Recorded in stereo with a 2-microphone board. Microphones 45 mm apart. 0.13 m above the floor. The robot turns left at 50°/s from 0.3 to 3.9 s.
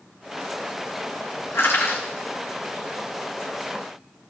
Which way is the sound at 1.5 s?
75° left (ahead or behind).